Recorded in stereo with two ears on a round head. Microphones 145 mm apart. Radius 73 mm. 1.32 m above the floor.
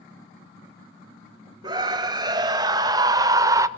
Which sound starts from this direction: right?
A scream, at 1.6 s.